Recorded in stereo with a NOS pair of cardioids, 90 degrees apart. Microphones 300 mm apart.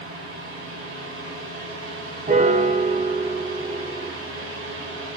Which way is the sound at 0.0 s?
45° right.